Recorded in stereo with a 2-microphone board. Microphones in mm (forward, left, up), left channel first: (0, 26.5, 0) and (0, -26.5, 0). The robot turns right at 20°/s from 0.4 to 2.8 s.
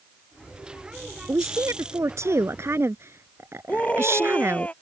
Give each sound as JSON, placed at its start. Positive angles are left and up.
{"t": 1.3, "sound": "a woman speaking", "azimuth_deg": -95}
{"t": 3.7, "sound": "a scream", "side_deg": 25}